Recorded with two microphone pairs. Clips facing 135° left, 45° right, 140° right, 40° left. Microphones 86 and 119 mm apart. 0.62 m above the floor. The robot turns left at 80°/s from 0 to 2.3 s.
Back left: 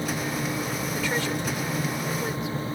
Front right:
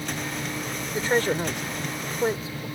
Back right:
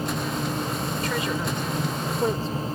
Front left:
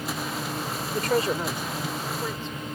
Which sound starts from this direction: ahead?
A woman speaking, at 0.9 s.